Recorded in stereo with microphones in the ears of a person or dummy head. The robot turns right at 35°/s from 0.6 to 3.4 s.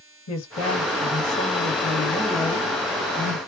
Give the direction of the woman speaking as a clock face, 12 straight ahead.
9 o'clock.